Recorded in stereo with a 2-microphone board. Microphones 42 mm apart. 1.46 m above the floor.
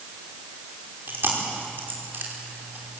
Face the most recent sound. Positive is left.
turn(degrees=-65)  # may be behind; listen again after turning